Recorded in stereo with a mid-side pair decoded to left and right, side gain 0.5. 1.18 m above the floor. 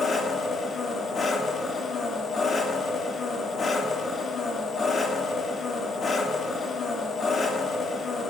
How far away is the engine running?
About 2.5 m.